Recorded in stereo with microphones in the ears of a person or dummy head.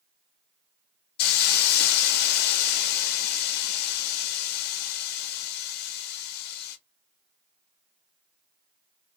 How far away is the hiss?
About 0.6 m.